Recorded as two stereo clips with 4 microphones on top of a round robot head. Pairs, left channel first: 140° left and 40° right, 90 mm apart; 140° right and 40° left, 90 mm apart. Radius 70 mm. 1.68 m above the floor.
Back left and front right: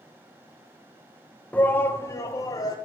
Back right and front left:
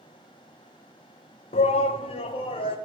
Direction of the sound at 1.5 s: 145° right.